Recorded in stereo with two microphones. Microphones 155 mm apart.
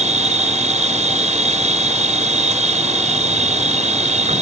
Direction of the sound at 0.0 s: 50° right (ahead or behind).